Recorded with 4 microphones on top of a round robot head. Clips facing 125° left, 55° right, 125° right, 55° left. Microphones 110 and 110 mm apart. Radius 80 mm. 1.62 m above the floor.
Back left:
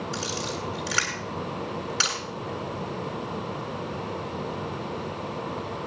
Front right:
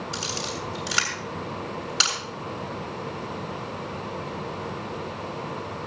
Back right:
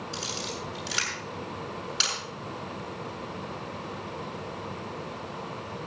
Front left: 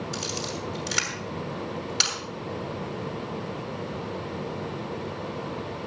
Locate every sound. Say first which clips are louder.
0.1 s a camera shutter: back left 1 dB, front left 3 dB; 15° left, 6.5 m